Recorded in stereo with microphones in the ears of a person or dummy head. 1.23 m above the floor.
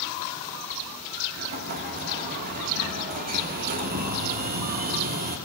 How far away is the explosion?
About 1.4 m.